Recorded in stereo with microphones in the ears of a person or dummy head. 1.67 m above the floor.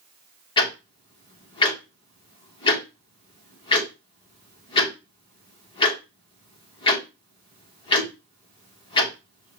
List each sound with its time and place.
0.6 s ticking: 25° left (ahead or behind), 1.3 m